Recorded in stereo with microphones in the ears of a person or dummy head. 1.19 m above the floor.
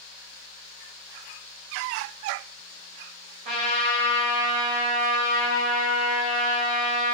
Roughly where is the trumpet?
Right.